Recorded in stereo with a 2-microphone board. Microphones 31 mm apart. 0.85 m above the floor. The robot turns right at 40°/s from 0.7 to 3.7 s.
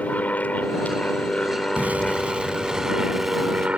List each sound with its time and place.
0.0 s an aircraft: 110° left; by 3.8 s 130° right
1.8 s an explosion: 65° right; by 3.7 s 15° left